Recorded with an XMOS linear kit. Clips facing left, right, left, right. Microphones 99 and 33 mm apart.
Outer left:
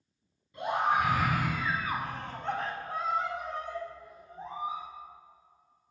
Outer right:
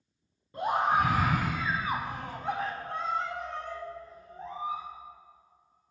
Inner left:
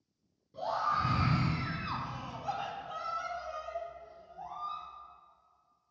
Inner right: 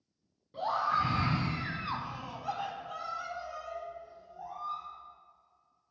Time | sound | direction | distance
0.5 | a scream | 45° right (ahead or behind) | 1.5 m